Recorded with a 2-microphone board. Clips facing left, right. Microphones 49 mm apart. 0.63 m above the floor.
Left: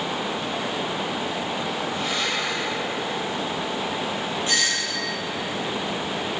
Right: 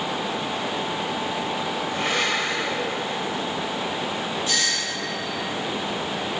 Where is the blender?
55° right (ahead or behind), 2.5 m.